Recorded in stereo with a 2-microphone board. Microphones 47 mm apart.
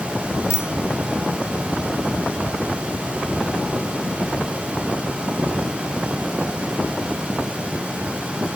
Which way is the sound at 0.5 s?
70° left (ahead or behind).